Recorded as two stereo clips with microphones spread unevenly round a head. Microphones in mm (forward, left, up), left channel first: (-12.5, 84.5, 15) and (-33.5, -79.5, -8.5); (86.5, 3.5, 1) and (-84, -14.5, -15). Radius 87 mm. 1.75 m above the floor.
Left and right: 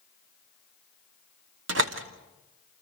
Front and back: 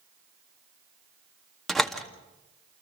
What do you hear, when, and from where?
1.7 s a door slam: 80° right, 2.0 m